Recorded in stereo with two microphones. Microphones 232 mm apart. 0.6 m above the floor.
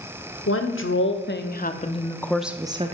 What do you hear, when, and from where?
0.5 s a woman speaking: 65° left (ahead or behind), 1.3 m; by 2.9 s 30° right (ahead or behind), 0.7 m